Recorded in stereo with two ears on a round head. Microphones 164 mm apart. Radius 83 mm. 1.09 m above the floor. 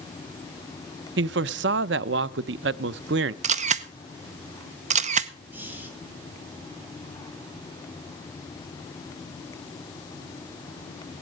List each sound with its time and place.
1.2 s a man speaking: 60° right (ahead or behind), 0.5 m
3.4 s a camera shutter: 40° right (ahead or behind), 0.7 m
5.5 s breathing: 10° right (ahead or behind), 2.5 m